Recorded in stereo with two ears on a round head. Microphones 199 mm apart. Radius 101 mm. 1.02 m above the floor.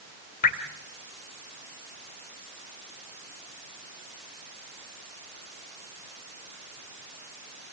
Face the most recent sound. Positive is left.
turn(degrees=40)  # may be behind; listen again after turning